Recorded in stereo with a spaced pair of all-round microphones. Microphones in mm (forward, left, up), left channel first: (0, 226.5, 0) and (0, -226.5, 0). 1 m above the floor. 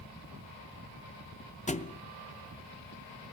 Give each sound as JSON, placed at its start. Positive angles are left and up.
{"t": 1.7, "sound": "a thud", "side_deg": 15, "distance_m": 0.5}